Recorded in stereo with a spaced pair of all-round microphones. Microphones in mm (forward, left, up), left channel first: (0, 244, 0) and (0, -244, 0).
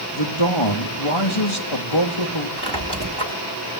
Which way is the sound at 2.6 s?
55° right (ahead or behind).